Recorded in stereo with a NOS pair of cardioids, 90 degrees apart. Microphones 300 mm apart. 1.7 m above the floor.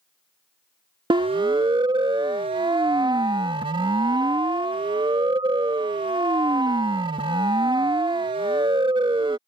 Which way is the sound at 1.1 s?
15° right.